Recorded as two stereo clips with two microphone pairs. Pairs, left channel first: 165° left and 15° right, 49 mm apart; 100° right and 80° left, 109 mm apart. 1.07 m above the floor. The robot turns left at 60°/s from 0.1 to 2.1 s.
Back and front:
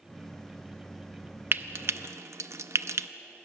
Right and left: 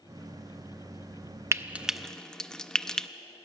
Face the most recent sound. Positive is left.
turn(degrees=-20)